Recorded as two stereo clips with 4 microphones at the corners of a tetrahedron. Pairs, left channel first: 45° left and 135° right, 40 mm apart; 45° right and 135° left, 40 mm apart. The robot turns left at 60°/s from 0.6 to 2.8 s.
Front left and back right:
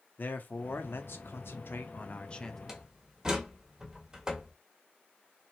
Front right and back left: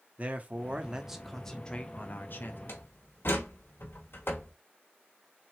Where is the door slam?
55° right, 1.1 m; by 4.5 s 60° right, 1.1 m.